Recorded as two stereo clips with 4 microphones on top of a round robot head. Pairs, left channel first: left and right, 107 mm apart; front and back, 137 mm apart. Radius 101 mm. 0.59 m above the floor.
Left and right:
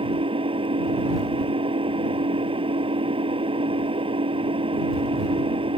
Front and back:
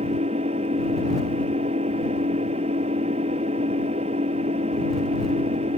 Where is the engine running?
125° right.